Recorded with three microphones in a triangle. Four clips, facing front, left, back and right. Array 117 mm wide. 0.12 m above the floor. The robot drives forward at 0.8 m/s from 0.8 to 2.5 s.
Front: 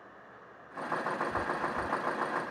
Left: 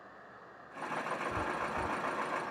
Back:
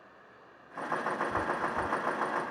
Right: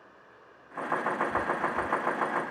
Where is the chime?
150° left; by 2.5 s 160° left.